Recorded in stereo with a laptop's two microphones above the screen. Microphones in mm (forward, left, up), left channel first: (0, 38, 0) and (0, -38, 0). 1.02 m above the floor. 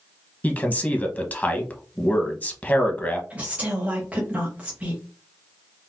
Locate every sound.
0.4 s a man speaking: 20° left (ahead or behind), 1.0 m
3.3 s a woman speaking: 20° right (ahead or behind), 0.8 m